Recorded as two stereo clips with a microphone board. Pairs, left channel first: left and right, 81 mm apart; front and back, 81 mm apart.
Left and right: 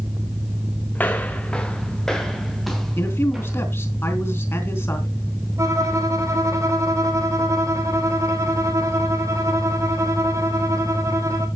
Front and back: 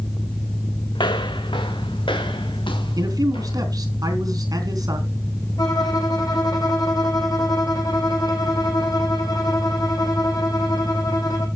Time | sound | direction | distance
0.9 | footsteps | 20° left | 1.5 m
3.0 | a man speaking | 145° left | 3.5 m
5.6 | a violin | 40° right | 2 m